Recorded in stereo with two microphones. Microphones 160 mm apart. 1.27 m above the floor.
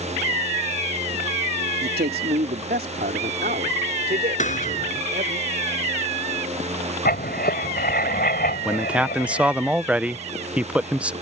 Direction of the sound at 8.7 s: 5° right (ahead or behind).